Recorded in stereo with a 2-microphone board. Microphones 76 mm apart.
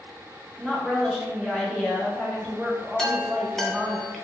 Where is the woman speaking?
5° left (ahead or behind), 0.7 m.